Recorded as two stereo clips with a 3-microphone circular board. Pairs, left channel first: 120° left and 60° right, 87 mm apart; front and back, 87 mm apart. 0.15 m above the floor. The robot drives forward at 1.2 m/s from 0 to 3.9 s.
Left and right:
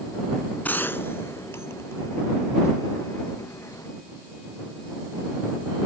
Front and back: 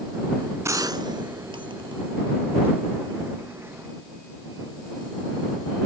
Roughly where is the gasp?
No gasp in this recording.